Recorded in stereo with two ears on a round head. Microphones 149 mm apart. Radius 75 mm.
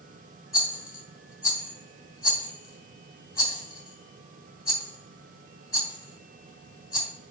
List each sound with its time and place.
0.5 s a rattle: 20° left (ahead or behind), 1.5 m